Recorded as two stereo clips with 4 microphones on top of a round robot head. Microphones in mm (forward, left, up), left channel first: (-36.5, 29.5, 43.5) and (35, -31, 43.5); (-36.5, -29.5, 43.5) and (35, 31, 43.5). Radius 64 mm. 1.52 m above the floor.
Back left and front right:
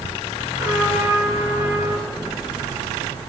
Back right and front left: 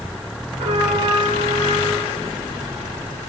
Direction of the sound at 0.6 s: 30° left.